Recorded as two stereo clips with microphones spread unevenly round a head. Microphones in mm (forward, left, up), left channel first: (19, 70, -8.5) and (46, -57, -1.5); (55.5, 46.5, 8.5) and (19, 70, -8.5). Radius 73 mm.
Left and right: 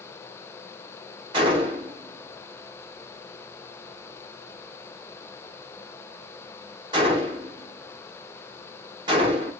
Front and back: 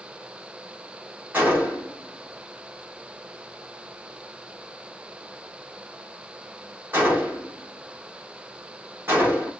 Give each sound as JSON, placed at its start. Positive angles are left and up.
{"t": 1.3, "sound": "a gunshot", "azimuth_deg": -140, "distance_m": 1.2}